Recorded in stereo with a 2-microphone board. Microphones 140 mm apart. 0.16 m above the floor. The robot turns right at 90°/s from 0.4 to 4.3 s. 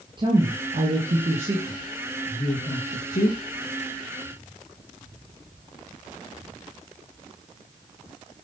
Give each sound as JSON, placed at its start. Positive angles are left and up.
{"t": 0.2, "sound": "a woman speaking", "side_deg": -35, "distance_m": 3.5}